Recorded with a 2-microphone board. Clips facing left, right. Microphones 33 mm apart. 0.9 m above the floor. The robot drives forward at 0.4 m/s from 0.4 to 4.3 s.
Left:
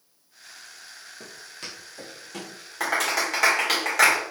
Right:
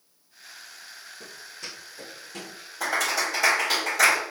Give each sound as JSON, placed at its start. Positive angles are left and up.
{"t": 1.2, "sound": "footsteps", "side_deg": 65, "distance_m": 2.0}
{"t": 2.8, "sound": "a clap", "side_deg": 85, "distance_m": 2.5}